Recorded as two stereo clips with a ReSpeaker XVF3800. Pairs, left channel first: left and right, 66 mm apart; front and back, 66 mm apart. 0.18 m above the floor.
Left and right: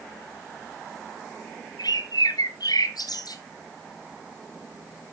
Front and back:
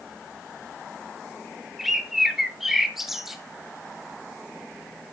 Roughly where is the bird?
Left.